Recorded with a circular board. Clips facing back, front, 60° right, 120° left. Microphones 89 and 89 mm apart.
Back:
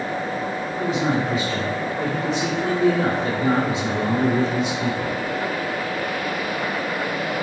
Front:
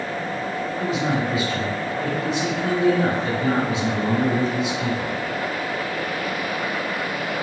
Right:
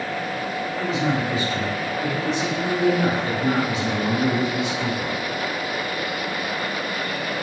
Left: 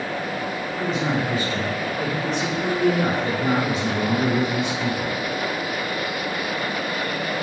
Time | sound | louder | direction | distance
0.8 | a man speaking | back 2 dB, even | 155° left | 1.8 m